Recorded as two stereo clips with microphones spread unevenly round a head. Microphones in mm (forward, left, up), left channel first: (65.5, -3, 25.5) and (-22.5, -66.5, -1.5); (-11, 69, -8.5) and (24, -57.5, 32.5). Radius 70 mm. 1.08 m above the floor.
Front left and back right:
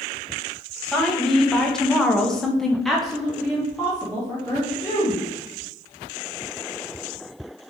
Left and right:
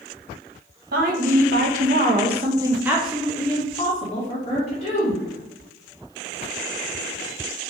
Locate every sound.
0.9 s a woman speaking: 55° right, 1.3 m; by 5.2 s 135° left, 1.7 m